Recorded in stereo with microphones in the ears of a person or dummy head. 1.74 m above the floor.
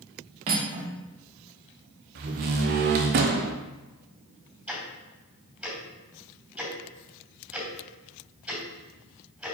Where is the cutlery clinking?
25° right (ahead or behind), 0.9 m.